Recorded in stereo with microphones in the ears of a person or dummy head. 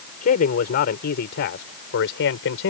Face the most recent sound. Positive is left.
turn(degrees=70)  # may be behind; listen again after turning